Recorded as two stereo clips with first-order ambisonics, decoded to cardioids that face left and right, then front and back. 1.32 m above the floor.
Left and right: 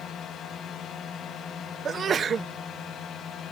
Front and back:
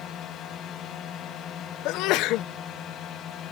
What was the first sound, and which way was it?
A drone, 45° left.